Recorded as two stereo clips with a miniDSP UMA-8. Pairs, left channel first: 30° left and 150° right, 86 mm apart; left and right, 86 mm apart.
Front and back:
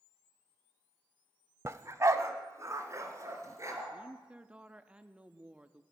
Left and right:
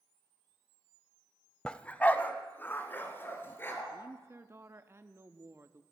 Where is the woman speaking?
90° right, 0.5 m.